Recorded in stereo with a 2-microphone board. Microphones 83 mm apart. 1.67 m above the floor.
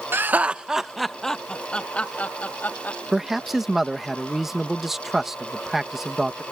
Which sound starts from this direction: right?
Laughter, at 0.1 s.